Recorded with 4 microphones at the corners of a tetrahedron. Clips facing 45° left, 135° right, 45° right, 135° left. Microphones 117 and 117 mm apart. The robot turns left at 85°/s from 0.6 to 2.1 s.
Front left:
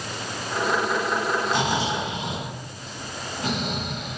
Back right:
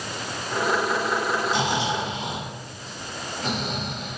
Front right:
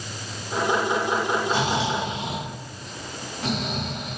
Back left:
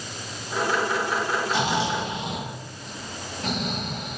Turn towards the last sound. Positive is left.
turn(degrees=-30)